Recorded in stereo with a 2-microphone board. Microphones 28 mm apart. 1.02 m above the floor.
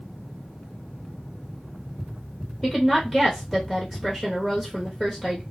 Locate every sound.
2.6 s a woman speaking: 10° left (ahead or behind), 0.9 m